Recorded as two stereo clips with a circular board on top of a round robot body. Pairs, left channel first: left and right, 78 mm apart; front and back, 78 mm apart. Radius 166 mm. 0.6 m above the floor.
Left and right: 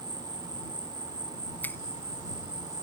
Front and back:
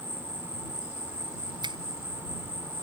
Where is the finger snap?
155° left.